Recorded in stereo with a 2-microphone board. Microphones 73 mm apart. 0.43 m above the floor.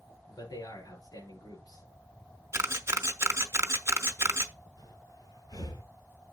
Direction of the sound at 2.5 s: 45° right (ahead or behind).